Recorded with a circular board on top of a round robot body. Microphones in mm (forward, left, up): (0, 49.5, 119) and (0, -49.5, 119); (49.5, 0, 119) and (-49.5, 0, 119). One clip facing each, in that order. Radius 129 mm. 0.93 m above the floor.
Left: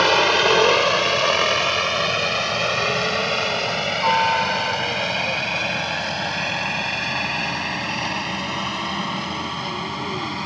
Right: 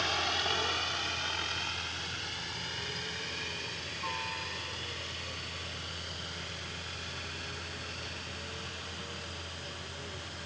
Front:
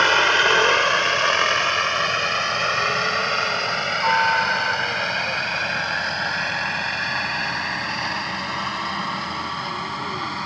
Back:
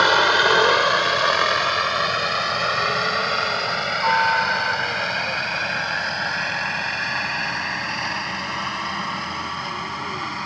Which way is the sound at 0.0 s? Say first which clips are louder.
Left 17 dB, back 1 dB; 100° left.